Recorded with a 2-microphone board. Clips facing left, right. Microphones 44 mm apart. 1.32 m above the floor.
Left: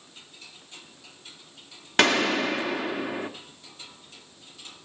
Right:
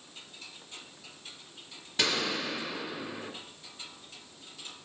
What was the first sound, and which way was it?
A gunshot, 70° left (ahead or behind).